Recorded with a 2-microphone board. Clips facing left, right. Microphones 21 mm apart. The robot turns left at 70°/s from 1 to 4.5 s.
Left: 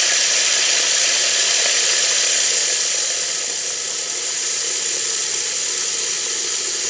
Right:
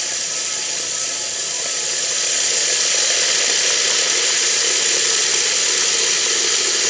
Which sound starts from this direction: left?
Running water, at 0.0 s.